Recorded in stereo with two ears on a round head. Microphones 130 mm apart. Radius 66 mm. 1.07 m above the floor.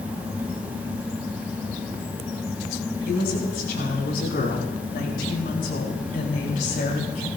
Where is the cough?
No cough in this recording.